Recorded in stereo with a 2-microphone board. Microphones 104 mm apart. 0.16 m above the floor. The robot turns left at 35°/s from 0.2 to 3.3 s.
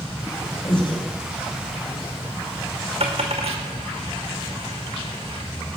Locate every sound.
0.6 s breathing: 50° left (ahead or behind), 2.5 m
3.0 s a dropped coin: 75° right (ahead or behind), 2.5 m; by 5.4 s 85° right, 2.5 m